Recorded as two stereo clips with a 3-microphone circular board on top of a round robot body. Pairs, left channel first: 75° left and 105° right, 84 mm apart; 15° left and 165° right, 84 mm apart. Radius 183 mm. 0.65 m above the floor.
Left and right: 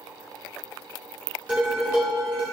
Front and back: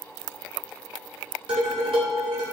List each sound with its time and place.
1.5 s dishes clattering: 175° right, 1.8 m